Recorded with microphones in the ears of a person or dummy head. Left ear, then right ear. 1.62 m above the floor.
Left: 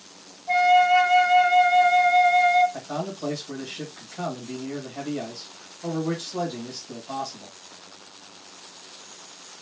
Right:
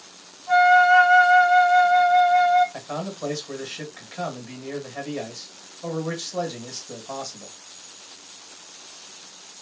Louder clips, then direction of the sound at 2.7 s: Even; 65° right (ahead or behind).